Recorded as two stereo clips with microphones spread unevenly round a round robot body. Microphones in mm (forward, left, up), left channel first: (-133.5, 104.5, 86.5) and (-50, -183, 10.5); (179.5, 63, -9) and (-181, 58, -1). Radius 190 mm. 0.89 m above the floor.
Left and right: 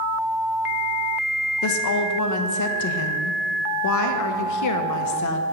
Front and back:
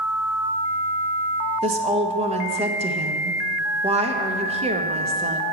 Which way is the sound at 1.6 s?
115° left.